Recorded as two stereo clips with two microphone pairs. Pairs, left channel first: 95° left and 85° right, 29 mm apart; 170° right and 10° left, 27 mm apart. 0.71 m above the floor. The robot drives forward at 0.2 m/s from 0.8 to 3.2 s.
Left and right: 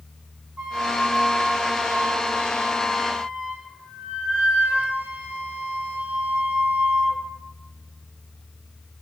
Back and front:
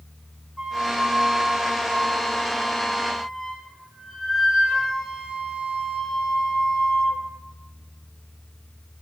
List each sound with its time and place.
0.6 s a flute: 65° right, 1.6 m; by 7.2 s 80° right, 1.5 m